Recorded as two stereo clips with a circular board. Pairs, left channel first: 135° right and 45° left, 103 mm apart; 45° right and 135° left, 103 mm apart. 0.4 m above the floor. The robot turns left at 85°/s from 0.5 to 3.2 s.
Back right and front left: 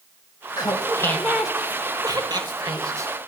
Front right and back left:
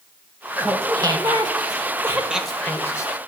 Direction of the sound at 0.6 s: 155° right.